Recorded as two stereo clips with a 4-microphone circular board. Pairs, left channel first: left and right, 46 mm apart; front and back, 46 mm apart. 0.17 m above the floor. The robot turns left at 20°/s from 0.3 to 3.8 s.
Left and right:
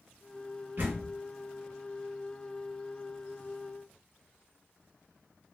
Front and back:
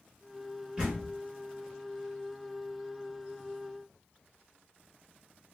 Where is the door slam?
115° right, 1.5 m; by 1.1 s 120° right, 1.5 m.